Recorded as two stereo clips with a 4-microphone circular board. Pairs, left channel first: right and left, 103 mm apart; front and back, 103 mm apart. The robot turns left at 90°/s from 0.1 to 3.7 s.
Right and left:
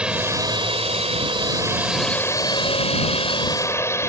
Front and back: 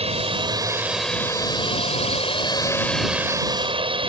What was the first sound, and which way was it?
A drone, 170° left.